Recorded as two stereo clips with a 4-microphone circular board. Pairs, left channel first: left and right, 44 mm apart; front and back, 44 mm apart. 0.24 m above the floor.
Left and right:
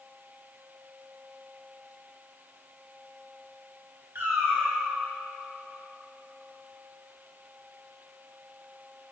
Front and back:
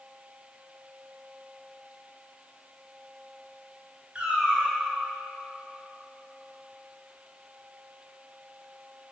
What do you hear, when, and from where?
4.2 s a cat meowing: 115° right, 1.4 m